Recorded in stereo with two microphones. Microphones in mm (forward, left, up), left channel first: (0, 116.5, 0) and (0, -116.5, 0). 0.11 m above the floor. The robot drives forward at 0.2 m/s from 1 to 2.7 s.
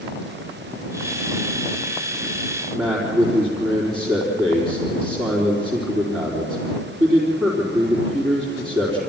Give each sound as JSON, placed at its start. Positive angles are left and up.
{"t": 2.7, "sound": "a man speaking", "side_deg": -20, "distance_m": 4.0}